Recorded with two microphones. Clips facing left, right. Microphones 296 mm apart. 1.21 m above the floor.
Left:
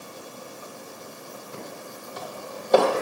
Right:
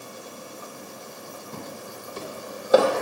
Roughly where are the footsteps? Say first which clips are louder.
Right 2 dB; right.